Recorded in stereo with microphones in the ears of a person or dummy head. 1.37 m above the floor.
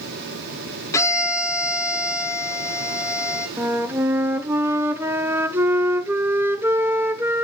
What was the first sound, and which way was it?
A violin, 20° left (ahead or behind).